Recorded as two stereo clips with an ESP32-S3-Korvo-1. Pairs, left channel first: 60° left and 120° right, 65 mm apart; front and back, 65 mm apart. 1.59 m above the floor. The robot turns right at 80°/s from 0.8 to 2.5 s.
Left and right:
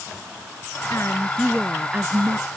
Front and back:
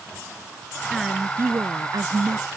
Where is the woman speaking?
90° left; by 2.5 s 145° right.